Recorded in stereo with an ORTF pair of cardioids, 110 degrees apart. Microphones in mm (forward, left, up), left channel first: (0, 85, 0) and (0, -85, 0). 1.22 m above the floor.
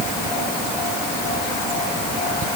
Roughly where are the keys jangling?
No keys jangling in this recording.